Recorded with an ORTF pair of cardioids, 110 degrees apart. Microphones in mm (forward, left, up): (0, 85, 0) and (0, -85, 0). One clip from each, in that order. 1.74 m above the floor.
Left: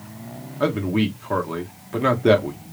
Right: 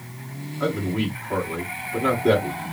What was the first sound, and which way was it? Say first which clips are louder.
A man speaking: left 3 dB; 40° left.